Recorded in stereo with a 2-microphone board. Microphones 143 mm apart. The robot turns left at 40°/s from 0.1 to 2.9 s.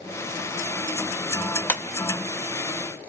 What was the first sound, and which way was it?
A clap, 15° left (ahead or behind).